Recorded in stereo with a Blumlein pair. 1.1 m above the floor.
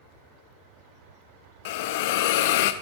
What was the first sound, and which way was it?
A hiss, 50° left.